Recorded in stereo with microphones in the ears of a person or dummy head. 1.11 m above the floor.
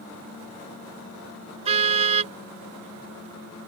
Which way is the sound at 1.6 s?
35° right (ahead or behind).